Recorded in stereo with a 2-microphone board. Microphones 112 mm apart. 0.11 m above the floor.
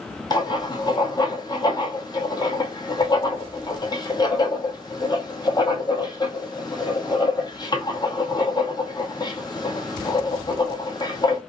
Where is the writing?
35° left (ahead or behind), 1.0 m.